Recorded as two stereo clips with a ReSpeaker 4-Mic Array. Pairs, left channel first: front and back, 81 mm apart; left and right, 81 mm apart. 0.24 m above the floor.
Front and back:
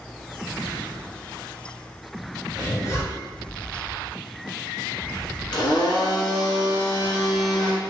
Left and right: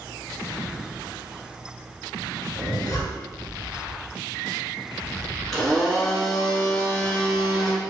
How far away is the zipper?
About 1.3 m.